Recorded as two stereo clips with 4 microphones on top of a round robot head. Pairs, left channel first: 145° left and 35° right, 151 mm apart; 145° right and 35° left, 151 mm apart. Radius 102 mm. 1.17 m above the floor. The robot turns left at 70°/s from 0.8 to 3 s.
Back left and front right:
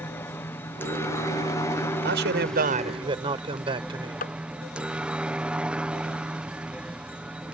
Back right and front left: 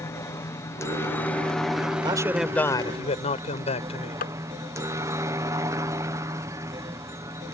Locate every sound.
0.0 s a helicopter: 170° right; by 7.5 s 35° left
2.0 s a man speaking: 25° right; by 4.2 s 95° right
4.2 s tapping: straight behind